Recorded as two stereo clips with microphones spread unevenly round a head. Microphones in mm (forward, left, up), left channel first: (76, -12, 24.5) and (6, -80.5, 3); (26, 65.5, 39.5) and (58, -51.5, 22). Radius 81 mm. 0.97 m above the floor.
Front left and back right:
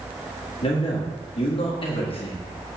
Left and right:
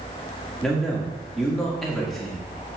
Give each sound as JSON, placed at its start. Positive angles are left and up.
{"t": 0.6, "sound": "a man speaking", "azimuth_deg": 15, "distance_m": 1.8}